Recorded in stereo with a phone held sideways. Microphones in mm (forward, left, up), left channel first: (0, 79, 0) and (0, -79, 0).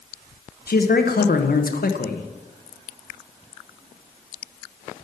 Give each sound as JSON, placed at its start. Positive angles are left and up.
{"t": 0.7, "sound": "a man speaking", "side_deg": 70, "distance_m": 1.0}